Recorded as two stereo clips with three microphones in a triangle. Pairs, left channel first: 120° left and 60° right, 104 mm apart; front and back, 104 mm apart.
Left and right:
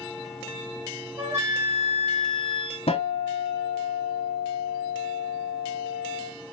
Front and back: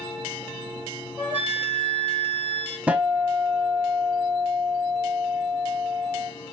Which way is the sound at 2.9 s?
100° left.